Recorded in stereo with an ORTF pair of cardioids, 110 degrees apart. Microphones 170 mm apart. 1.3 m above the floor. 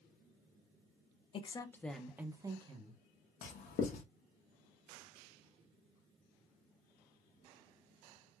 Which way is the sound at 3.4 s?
60° left.